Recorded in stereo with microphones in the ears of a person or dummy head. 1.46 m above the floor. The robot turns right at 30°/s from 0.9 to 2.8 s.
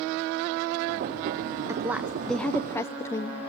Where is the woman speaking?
15° right, 0.7 m; by 3.4 s 15° left, 0.7 m.